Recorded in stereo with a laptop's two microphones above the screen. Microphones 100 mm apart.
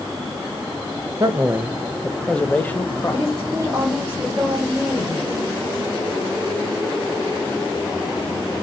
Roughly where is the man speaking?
Right.